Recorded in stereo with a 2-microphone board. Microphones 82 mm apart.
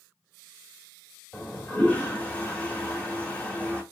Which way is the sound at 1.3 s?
15° left (ahead or behind).